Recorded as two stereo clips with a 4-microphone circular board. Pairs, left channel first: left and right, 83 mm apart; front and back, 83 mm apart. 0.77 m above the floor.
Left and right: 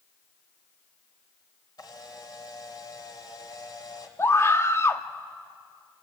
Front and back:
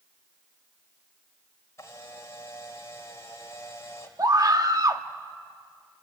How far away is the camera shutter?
About 2.5 m.